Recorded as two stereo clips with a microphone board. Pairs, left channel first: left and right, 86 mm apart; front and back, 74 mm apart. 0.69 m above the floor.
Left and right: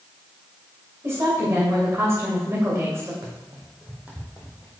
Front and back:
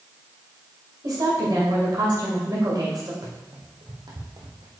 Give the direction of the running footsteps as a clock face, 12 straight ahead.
5 o'clock.